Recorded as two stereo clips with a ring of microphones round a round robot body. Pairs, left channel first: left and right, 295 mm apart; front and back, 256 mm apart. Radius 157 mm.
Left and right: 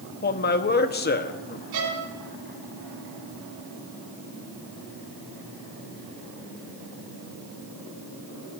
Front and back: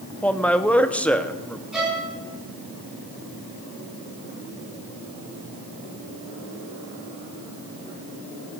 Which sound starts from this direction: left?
A man speaking, at 0.2 s.